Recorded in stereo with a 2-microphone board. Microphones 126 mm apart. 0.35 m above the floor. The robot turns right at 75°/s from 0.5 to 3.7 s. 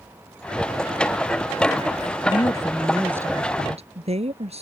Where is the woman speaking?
130° left; by 4.6 s 120° right.